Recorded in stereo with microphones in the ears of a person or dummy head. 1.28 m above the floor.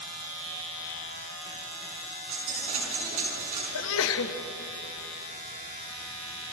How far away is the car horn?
I don't hear a car horn.